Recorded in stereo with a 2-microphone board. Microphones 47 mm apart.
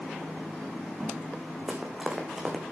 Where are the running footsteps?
10° right (ahead or behind), 1.9 m.